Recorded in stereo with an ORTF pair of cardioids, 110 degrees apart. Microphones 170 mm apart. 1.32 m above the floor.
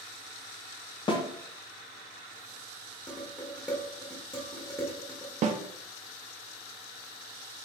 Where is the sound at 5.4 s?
45° right, 0.6 m.